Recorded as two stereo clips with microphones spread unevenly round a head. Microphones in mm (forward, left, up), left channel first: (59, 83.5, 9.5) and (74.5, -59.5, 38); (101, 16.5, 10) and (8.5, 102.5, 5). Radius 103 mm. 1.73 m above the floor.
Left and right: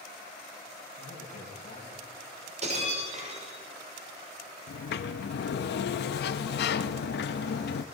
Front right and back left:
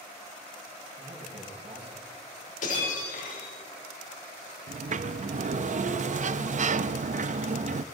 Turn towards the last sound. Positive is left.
turn(degrees=105)